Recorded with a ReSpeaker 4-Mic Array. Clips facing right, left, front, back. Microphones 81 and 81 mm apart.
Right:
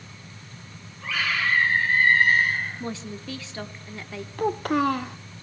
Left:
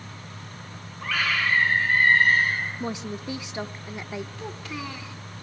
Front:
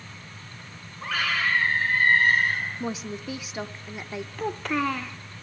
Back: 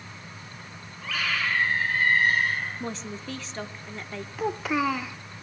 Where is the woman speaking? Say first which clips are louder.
Left 2 dB, front 3 dB; 60° left, 0.9 m.